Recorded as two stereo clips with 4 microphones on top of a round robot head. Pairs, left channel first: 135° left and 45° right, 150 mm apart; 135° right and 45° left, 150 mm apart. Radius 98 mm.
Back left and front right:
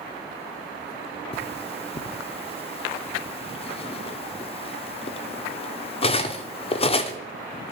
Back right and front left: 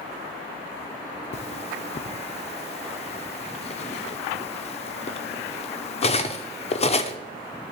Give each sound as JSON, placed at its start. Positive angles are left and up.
{"t": 1.3, "sound": "cutlery clinking", "azimuth_deg": 180, "distance_m": 0.8}